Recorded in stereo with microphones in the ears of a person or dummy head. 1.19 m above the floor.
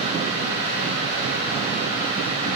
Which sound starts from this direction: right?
A fan, at 0.0 s.